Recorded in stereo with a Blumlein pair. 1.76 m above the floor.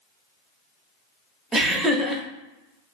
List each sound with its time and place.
1.5 s laughter: 15° right, 0.6 m